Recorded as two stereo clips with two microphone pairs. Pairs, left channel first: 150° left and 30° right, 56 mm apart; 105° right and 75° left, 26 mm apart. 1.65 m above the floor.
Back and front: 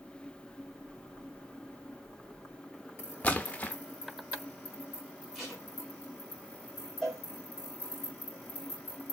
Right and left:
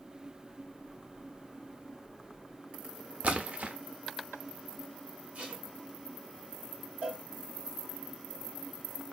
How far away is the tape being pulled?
About 1.9 m.